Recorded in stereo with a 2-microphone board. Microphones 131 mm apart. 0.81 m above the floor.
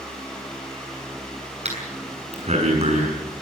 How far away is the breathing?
About 6.5 m.